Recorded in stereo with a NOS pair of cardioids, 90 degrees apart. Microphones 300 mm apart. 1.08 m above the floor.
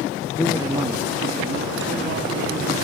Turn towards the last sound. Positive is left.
turn(degrees=-50)